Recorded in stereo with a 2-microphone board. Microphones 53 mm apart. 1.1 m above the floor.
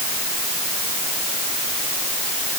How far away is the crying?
No crying in this recording.